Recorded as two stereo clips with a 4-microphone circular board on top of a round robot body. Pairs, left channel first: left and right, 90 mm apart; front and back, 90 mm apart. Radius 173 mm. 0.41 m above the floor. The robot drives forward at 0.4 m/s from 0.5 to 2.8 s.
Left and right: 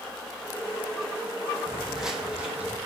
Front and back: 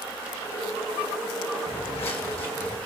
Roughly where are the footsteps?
Ahead.